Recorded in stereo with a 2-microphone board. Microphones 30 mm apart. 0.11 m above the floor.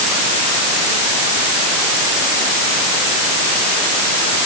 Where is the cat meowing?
No cat meowing in this recording.